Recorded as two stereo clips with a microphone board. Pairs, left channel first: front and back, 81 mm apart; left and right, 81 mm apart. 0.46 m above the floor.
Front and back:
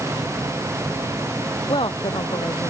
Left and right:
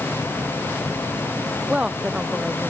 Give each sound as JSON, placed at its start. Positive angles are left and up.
{"t": 1.7, "sound": "a woman speaking", "azimuth_deg": -15}